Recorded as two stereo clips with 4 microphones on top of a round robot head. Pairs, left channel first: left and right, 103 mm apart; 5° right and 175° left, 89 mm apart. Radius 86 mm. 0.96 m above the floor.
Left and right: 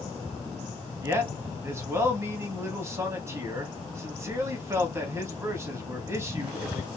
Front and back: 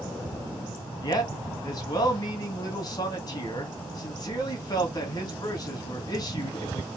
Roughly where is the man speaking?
Ahead right.